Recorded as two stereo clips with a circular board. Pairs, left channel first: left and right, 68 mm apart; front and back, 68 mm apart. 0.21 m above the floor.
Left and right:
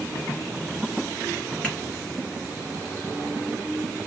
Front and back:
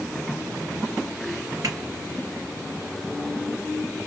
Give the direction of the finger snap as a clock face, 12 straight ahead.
6 o'clock.